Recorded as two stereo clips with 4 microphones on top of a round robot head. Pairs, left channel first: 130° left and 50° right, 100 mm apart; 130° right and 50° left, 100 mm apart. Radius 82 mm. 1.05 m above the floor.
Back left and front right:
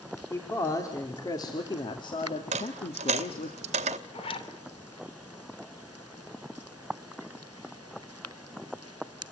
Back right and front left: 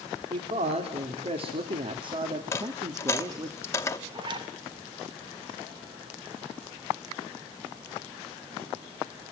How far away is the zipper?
About 3 m.